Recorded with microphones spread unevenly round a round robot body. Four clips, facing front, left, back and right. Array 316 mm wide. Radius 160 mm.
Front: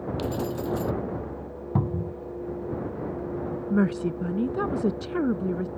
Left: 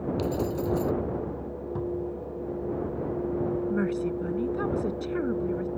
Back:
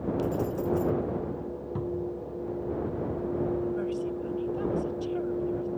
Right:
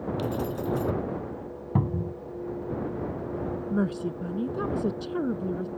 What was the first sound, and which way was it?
Keys jangling, straight ahead.